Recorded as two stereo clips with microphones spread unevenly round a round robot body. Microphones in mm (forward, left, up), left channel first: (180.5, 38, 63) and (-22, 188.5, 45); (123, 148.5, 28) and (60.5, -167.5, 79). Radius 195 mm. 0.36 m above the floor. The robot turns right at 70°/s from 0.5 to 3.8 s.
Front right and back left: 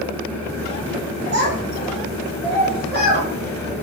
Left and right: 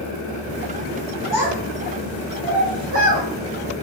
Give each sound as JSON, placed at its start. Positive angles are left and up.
{"t": 1.3, "sound": "a child speaking", "azimuth_deg": 170, "distance_m": 1.8}